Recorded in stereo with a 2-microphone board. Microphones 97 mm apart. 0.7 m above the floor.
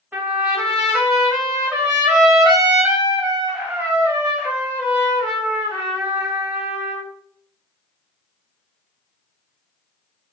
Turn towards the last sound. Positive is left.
turn(degrees=-15)  # may be behind; listen again after turning